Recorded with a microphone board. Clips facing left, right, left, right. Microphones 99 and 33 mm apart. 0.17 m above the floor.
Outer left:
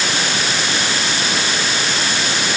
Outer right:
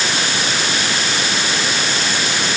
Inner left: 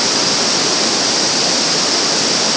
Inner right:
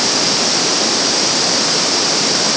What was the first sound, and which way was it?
Only background noise.